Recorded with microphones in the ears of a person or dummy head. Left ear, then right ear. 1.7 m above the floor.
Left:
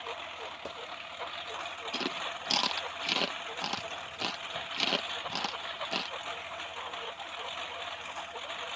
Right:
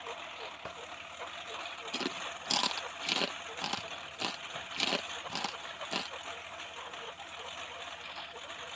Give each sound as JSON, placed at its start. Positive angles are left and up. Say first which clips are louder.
{"t": 0.0, "sound": "a lawn mower", "louder": "left 3 dB", "side_deg": 5}
{"t": 1.9, "sound": "chewing", "louder": "left 2 dB", "side_deg": 0}